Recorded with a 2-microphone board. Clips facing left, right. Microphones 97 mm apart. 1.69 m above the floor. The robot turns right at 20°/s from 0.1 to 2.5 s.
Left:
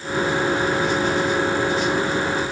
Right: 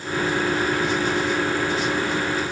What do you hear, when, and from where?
Only background noise.